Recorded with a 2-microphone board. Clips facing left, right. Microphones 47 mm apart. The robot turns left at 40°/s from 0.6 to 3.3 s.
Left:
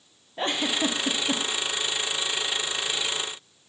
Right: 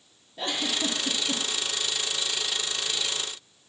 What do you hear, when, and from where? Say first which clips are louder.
0.4 s a giggle: left 3 dB; 35° left (ahead or behind), 0.6 m; by 1.4 s 60° left (ahead or behind), 0.6 m